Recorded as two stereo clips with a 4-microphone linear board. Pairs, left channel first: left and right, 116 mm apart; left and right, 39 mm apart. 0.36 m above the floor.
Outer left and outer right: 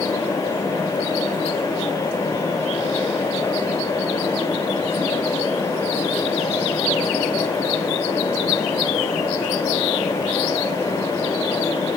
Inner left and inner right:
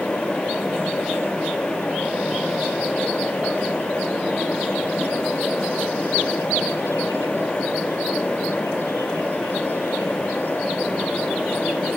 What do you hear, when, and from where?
Only background noise.